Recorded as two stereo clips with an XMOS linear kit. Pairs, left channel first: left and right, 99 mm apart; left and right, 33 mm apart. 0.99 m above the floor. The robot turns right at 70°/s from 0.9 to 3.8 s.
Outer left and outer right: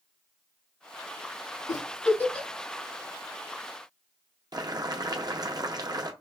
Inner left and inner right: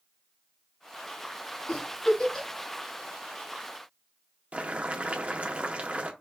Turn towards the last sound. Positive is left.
turn(degrees=-45)  # may be behind; listen again after turning